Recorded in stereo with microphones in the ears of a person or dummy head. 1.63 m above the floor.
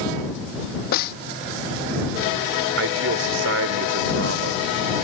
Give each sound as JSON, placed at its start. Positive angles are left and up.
{"t": 0.9, "sound": "a snare drum", "side_deg": 50}
{"t": 2.8, "sound": "a man speaking", "side_deg": -80}